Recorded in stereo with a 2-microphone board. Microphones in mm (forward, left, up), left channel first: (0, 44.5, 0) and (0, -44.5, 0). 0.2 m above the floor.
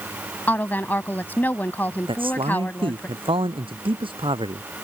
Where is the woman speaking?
20° left (ahead or behind).